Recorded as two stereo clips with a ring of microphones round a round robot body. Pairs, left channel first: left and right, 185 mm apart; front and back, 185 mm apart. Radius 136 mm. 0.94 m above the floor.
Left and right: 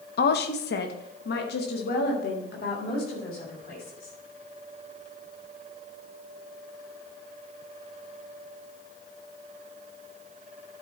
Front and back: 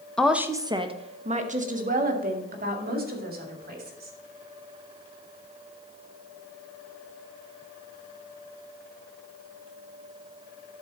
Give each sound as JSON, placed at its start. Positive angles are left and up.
{"t": 0.2, "sound": "a woman speaking", "azimuth_deg": 85, "distance_m": 0.6}